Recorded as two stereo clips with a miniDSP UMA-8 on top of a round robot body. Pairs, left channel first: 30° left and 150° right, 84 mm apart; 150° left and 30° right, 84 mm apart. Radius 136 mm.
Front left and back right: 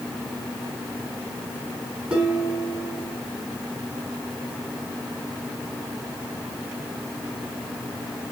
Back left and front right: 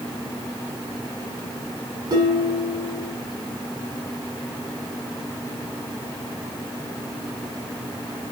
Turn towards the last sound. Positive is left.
turn(degrees=-75)